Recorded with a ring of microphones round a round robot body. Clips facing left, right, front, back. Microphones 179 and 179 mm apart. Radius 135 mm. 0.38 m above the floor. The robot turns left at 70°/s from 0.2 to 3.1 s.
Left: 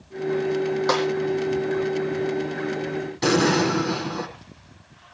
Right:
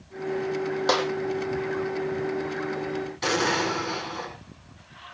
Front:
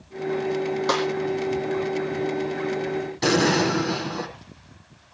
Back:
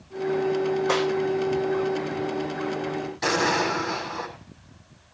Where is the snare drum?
30° right, 6 m; by 1.0 s 40° right, 6 m.